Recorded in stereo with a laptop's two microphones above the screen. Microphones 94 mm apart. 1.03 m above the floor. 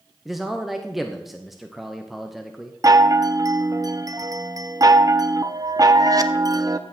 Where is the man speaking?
Centre (ahead or behind), 0.8 m.